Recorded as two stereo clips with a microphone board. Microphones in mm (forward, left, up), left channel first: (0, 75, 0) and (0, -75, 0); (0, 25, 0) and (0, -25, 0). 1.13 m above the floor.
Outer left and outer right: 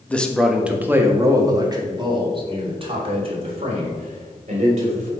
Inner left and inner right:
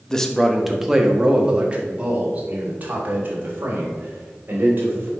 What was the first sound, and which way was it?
A man speaking, 10° left (ahead or behind).